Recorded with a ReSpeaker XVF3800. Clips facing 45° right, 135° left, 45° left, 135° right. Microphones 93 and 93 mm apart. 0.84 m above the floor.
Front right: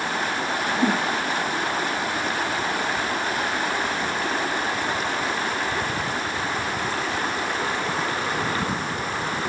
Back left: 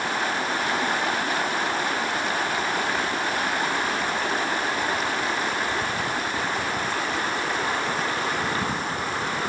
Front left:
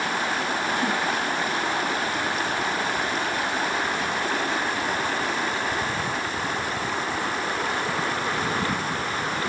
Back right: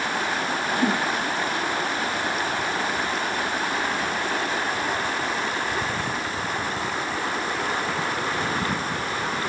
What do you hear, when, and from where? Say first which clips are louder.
0.8 s a whoosh: front right 3 dB, back right 2 dB; 85° right